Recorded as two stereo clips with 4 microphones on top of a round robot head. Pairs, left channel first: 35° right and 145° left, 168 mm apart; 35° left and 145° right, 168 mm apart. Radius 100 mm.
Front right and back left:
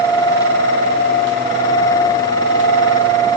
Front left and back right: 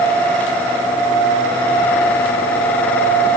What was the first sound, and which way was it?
Only background noise.